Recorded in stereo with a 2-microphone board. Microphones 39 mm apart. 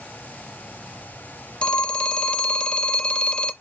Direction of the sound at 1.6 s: 25° left (ahead or behind).